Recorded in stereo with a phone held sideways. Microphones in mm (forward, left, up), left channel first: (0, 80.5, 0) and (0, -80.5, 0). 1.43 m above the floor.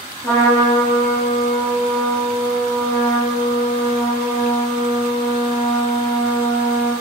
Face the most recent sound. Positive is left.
turn(degrees=10)  # may be behind; listen again after turning